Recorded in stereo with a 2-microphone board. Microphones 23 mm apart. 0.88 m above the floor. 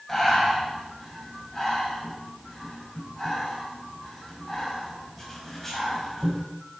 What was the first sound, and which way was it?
Breathing, 15° left (ahead or behind).